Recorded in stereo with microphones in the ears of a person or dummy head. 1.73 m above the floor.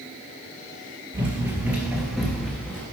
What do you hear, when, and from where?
1.1 s running footsteps: 15° right (ahead or behind), 2.5 m; by 2.8 s 15° left (ahead or behind), 1.8 m